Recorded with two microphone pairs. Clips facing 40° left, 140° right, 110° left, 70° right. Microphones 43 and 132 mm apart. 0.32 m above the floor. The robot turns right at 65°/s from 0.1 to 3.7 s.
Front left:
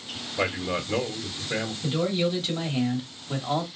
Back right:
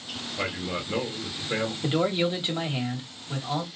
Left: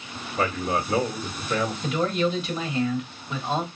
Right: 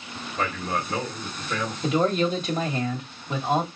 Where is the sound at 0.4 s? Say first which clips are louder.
Front left 4 dB, left 3 dB; 95° left, 1.6 m; by 1.7 s 175° right, 1.6 m.